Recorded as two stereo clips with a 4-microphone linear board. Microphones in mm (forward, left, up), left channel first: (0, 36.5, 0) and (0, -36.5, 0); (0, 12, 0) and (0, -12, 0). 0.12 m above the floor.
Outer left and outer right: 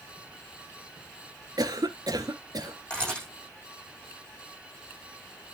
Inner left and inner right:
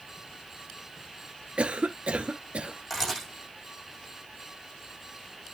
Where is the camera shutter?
10° left (ahead or behind), 8 m.